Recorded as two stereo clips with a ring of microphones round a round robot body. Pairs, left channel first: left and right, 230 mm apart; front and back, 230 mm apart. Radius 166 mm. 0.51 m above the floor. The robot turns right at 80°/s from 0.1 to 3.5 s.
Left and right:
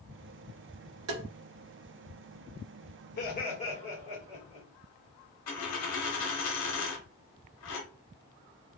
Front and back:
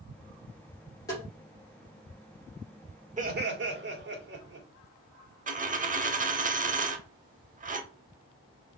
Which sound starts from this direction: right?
Tapping, at 1.1 s.